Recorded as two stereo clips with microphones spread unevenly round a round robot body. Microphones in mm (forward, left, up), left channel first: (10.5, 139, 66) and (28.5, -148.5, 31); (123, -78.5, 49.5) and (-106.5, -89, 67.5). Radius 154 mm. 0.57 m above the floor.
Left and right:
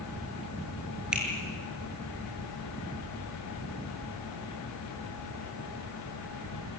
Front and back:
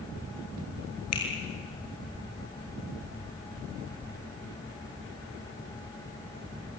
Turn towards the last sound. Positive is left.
turn(degrees=0)